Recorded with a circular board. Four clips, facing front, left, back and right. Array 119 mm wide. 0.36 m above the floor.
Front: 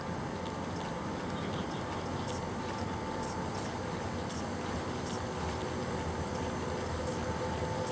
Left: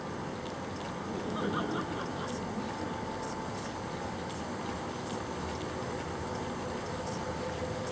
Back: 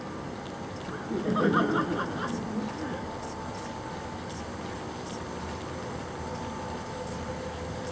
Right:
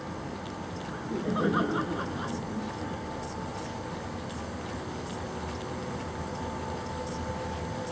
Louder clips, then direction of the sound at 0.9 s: Right 6 dB, back 7 dB; 150° right.